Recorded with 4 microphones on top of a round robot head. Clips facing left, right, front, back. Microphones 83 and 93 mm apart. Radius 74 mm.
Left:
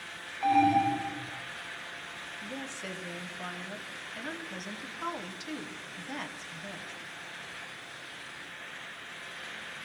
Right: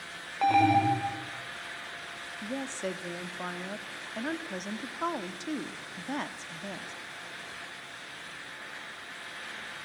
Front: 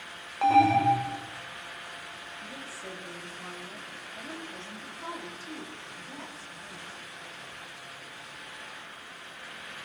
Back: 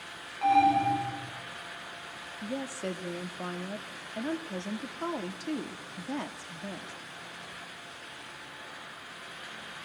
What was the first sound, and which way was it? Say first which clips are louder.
An alarm: right 1 dB, front 2 dB; 55° right.